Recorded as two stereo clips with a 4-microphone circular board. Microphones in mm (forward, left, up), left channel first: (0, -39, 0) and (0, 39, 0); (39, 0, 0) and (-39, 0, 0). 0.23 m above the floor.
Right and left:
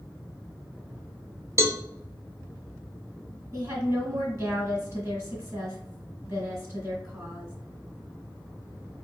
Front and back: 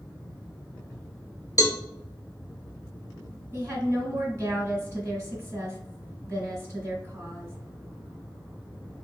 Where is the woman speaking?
125° left, 2.0 m.